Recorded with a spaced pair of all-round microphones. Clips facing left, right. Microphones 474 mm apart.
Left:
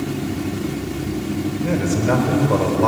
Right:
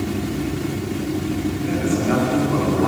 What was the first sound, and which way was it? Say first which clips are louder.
A man speaking: even; 85° left.